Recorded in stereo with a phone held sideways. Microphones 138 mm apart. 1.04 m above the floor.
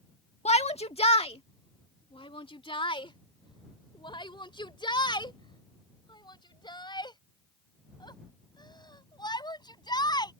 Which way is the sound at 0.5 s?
50° left (ahead or behind).